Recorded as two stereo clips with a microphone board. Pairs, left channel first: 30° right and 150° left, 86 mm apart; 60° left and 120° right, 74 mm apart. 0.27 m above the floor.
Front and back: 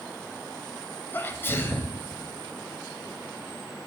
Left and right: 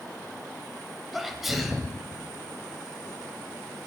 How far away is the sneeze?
About 1.0 m.